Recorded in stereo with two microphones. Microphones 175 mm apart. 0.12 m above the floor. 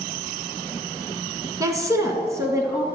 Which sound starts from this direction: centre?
A woman speaking, at 1.6 s.